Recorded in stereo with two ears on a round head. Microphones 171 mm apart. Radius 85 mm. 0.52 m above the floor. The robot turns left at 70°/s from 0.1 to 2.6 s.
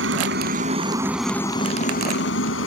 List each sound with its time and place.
0.0 s a helicopter: 100° right; by 2.7 s 85° left